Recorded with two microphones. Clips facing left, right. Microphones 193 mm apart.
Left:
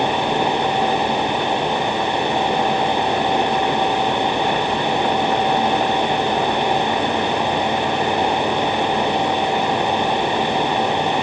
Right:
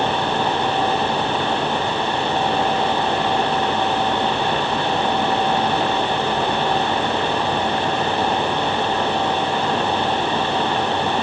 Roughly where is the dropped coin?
No dropped coin in this recording.